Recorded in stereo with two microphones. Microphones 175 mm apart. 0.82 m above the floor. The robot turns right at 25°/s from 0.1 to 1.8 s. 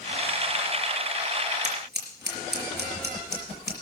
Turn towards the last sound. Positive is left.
turn(degrees=-70)  # may be behind; listen again after turning